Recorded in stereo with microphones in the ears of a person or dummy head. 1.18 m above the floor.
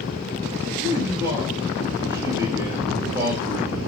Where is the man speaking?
15° right (ahead or behind), 5 m.